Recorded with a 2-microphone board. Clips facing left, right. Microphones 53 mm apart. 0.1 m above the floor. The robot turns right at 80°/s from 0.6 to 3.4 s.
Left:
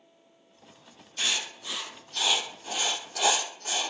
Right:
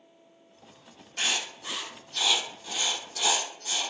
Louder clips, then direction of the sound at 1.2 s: Right 1 dB; 60° right (ahead or behind).